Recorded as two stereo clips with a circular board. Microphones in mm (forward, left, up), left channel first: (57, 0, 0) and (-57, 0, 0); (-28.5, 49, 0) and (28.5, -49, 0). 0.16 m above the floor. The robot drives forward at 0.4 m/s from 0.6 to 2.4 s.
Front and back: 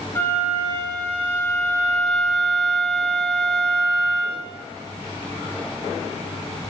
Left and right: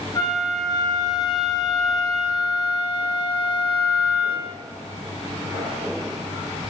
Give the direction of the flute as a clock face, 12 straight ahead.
10 o'clock.